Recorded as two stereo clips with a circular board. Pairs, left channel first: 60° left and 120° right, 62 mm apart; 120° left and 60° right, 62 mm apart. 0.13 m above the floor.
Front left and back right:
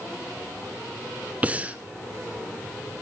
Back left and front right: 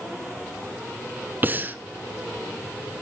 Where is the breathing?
75° right, 0.7 m.